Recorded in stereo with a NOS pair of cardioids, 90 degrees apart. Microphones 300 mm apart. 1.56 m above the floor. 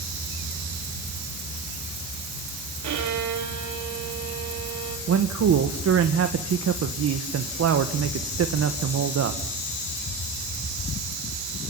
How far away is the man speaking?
About 1.9 m.